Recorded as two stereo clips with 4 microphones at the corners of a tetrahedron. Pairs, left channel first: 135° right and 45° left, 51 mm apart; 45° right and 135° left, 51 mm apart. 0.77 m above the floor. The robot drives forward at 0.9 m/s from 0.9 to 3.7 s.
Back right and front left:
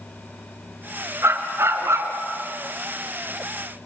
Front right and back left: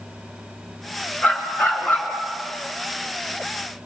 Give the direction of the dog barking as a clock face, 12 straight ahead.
12 o'clock.